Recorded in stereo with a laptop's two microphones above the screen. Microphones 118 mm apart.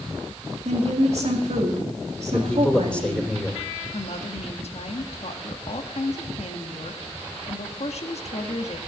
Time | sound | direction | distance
0.7 | a woman speaking | 65° right (ahead or behind) | 2.5 m
2.3 | a man speaking | 10° left (ahead or behind) | 3 m
3.9 | a woman speaking | 65° left (ahead or behind) | 1.4 m